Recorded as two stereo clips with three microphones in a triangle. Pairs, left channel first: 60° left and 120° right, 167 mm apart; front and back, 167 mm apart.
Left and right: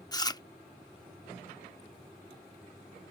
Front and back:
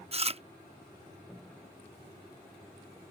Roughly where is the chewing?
Behind left.